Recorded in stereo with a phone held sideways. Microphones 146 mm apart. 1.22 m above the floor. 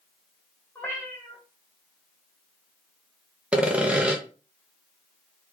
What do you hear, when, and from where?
0.8 s a cat meowing: 15° left (ahead or behind), 1.6 m
3.5 s sawing: 10° right (ahead or behind), 0.7 m